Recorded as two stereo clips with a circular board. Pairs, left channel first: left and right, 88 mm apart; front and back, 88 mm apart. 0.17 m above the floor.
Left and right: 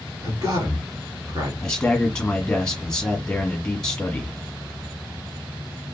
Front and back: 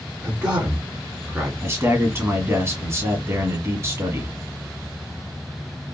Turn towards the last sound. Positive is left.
turn(degrees=160)